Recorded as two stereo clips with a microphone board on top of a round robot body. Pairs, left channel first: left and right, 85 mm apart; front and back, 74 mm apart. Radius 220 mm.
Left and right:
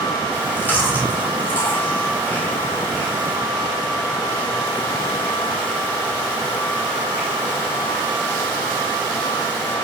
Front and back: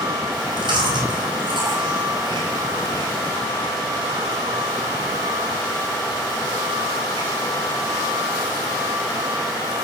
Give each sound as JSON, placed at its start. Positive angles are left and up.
{"t": 0.3, "sound": "chewing", "azimuth_deg": 160, "distance_m": 4.5}